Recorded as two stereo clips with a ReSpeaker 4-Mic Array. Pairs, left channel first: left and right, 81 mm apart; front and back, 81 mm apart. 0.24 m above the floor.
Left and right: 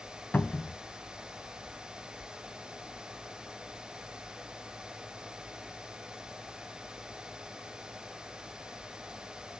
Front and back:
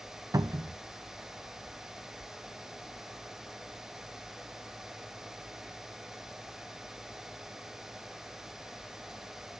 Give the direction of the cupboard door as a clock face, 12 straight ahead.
7 o'clock.